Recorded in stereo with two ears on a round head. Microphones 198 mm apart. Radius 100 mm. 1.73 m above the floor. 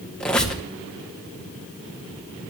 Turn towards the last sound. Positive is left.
turn(degrees=5)  # may be behind; listen again after turning